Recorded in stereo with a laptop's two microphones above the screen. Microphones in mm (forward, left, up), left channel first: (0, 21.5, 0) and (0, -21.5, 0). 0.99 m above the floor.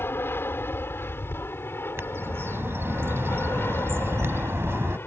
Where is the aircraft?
60° left (ahead or behind).